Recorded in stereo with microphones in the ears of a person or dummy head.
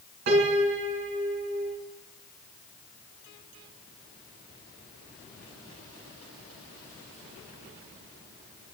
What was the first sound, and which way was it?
A piano, 60° right (ahead or behind).